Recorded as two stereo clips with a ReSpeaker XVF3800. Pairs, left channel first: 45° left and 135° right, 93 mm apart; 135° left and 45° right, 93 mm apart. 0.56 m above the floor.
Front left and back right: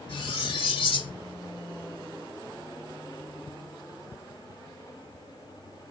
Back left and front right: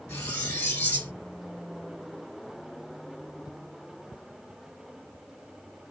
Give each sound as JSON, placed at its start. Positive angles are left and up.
{"t": 0.1, "sound": "cutlery clinking", "azimuth_deg": 65, "distance_m": 1.5}